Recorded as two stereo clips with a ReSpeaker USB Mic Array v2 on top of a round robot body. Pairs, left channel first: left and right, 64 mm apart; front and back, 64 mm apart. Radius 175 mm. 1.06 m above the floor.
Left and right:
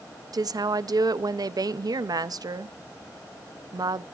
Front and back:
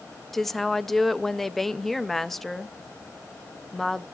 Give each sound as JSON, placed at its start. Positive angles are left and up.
{"t": 0.3, "sound": "a woman speaking", "azimuth_deg": -85, "distance_m": 0.6}